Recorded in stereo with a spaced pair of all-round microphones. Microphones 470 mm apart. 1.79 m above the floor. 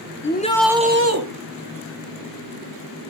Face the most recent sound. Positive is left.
turn(degrees=-40)  # may be behind; listen again after turning